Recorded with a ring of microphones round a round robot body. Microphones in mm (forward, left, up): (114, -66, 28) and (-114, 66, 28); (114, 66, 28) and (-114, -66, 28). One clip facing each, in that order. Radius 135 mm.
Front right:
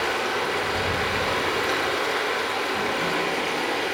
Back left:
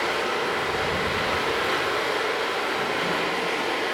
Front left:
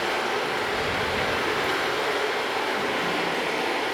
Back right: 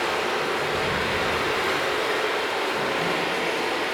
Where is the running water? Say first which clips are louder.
Even, back right 1 dB; 75° right, 0.7 m.